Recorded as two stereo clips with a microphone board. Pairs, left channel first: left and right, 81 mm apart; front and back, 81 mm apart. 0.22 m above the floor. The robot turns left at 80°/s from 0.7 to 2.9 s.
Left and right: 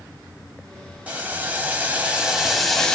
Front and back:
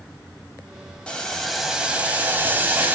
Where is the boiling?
55° right, 0.7 m; by 3.0 s 160° left, 0.7 m.